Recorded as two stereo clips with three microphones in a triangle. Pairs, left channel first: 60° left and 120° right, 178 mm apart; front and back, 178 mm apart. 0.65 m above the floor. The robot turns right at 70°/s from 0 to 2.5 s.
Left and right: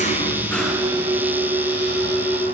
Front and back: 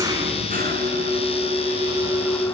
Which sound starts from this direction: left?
An engine running, at 0.0 s.